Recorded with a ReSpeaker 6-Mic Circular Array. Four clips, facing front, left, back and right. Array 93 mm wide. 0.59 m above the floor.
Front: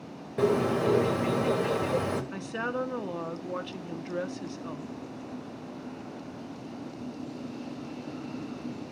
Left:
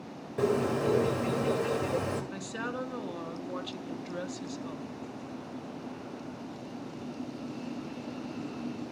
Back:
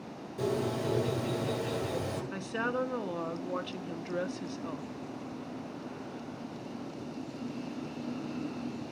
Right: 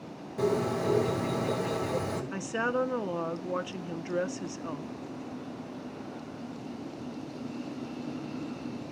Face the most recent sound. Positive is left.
turn(degrees=-85)